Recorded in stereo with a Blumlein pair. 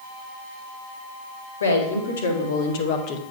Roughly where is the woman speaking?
Left.